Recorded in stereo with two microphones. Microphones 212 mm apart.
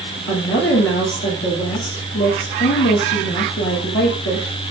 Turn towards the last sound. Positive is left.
turn(degrees=70)  # may be behind; listen again after turning